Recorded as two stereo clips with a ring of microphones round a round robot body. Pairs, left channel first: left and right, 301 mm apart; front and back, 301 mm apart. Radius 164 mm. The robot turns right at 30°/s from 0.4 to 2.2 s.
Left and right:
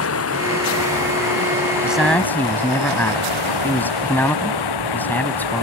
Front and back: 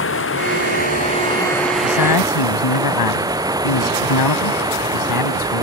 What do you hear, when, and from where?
0.0 s running water: 50° left; by 5.6 s 100° left
1.8 s a man speaking: 5° right; by 5.6 s 5° left